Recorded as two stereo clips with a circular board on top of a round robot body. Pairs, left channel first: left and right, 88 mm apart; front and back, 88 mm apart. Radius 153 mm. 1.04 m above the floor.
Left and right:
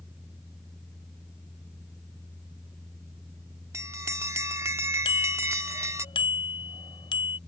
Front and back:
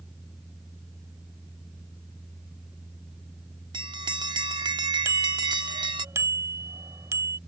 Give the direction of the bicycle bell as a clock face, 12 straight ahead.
8 o'clock.